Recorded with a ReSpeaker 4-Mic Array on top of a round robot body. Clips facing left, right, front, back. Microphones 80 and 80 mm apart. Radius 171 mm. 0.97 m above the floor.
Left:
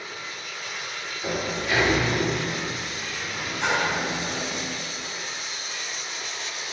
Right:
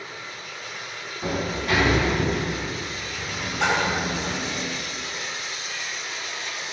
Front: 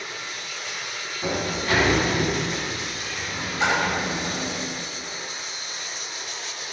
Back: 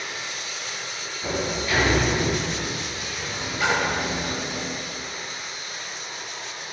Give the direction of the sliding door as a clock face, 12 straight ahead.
2 o'clock.